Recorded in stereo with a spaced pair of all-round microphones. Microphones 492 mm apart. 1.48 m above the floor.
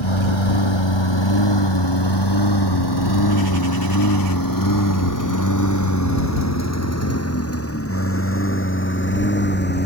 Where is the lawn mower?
65° left (ahead or behind); by 9.9 s 20° left (ahead or behind).